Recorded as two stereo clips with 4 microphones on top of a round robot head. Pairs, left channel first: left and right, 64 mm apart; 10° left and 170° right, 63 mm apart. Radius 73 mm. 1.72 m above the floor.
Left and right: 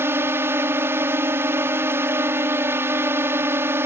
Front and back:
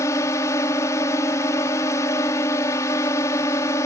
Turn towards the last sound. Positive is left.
turn(degrees=-40)